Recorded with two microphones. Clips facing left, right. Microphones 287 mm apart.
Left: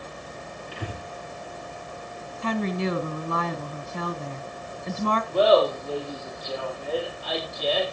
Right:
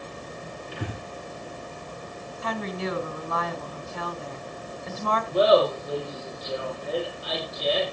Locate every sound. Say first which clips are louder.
0.7 s breathing: right 2 dB; 55° right (ahead or behind), 7.5 m
2.4 s a woman speaking: left 5 dB; 35° left (ahead or behind), 1.3 m
5.3 s laughter: even; 20° right (ahead or behind), 7.5 m